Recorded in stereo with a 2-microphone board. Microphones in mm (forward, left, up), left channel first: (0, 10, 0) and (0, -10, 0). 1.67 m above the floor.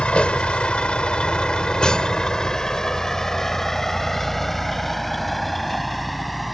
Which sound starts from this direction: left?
A vehicle, at 0.0 s.